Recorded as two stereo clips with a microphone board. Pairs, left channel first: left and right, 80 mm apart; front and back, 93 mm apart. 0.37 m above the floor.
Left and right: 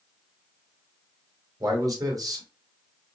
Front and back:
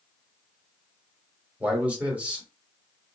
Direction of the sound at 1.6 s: 105° right.